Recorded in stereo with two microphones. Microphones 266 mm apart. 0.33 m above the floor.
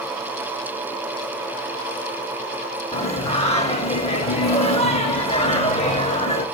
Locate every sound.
2.9 s singing: 25° left (ahead or behind), 0.6 m